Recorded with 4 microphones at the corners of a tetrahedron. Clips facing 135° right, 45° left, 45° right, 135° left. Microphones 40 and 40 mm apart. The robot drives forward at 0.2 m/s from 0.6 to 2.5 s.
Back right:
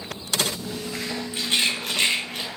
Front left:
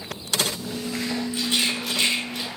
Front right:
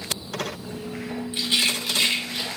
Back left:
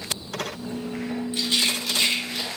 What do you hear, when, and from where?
1.3 s a rattle: 115° right, 1.1 m; by 2.5 s 125° right, 1.2 m